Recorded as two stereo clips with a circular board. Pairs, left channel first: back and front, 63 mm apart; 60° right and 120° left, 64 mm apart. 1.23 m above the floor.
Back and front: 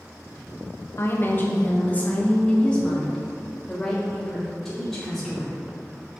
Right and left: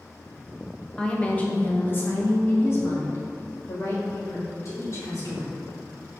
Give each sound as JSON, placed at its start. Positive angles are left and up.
{"t": 1.0, "sound": "a woman speaking", "azimuth_deg": -135, "distance_m": 1.3}